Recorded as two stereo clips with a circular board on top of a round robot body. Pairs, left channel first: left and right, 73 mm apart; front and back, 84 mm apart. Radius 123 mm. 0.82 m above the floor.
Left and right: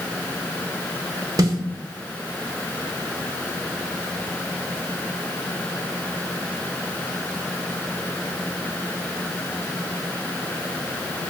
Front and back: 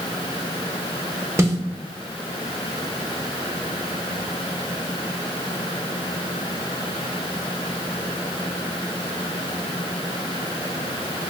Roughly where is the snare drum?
Behind right.